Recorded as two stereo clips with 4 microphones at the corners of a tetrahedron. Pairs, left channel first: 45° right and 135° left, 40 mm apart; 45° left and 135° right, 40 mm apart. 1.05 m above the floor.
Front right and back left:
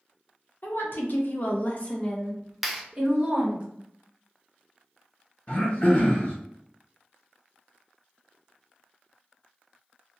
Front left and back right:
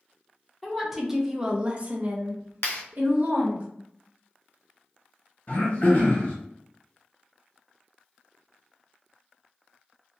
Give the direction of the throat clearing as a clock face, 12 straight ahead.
12 o'clock.